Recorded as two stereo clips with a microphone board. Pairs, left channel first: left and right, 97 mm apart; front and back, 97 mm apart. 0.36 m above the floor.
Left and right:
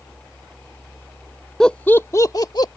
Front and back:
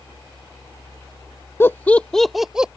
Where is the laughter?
15° left; by 2.7 s 100° left.